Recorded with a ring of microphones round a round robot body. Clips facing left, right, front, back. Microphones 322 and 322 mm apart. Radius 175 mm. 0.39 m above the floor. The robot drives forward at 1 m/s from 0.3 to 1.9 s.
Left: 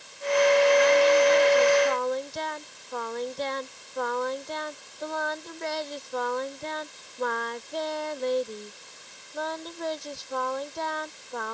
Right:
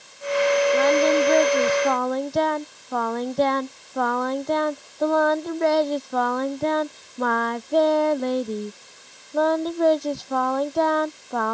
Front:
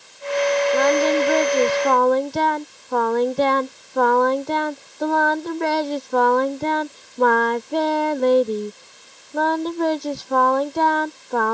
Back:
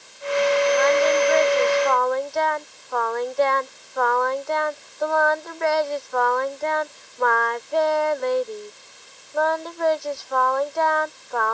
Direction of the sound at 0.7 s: 40° right.